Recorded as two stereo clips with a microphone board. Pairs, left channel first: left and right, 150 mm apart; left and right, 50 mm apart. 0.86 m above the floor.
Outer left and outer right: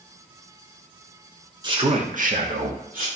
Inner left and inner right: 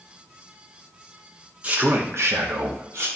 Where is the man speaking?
30° right (ahead or behind), 1.4 m; by 3.1 s 65° right (ahead or behind), 1.8 m.